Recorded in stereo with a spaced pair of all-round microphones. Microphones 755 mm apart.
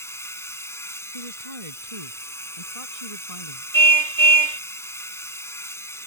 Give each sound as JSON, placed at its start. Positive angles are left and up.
{"t": 0.0, "sound": "a machine running", "side_deg": 5}
{"t": 1.1, "sound": "a woman speaking", "side_deg": -45}
{"t": 3.7, "sound": "a car horn", "side_deg": -70}